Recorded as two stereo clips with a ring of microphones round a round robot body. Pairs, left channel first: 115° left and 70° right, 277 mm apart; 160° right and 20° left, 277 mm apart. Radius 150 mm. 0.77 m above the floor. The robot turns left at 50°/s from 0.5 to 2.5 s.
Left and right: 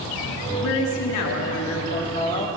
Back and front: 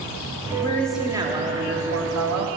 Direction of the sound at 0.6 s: 130° left.